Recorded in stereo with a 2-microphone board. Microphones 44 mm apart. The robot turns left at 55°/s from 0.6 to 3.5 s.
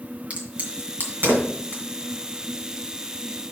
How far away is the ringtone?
I don't hear a ringtone.